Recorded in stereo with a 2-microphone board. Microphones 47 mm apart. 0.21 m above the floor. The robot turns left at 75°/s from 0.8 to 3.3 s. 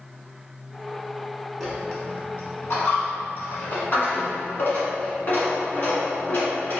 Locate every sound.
1.6 s a dropped coin: centre (ahead or behind), 1.0 m; by 6.8 s 45° left (ahead or behind), 1.0 m